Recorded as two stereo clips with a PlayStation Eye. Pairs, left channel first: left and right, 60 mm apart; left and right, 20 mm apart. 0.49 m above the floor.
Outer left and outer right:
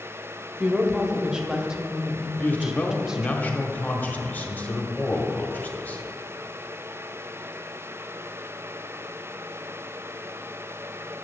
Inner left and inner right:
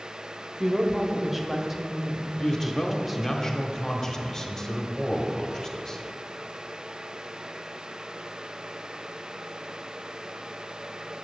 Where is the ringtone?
No ringtone in this recording.